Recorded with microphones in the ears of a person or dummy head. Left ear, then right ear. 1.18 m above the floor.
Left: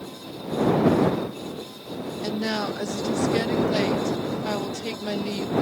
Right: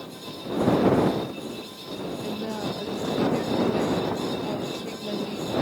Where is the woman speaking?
55° left (ahead or behind).